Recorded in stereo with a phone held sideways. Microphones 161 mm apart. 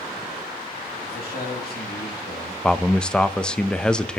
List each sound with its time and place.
1.0 s a man speaking: 70° left (ahead or behind), 3 m
2.6 s a man speaking: 5° left (ahead or behind), 0.7 m